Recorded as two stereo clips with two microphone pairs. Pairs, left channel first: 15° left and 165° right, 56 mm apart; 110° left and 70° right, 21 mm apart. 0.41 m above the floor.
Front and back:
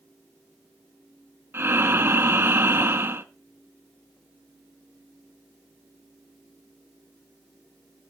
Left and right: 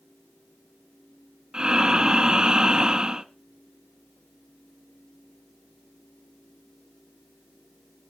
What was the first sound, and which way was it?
Breathing, 120° right.